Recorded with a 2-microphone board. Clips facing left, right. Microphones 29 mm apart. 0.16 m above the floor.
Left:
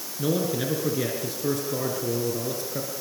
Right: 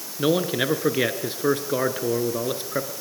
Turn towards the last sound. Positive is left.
turn(degrees=-50)  # may be behind; listen again after turning